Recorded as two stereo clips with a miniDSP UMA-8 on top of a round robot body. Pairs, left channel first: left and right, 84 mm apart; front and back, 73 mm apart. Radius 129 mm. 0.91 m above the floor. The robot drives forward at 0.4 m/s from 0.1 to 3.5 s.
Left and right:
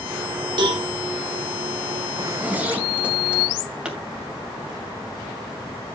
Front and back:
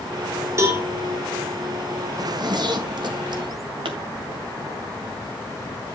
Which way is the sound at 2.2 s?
160° right.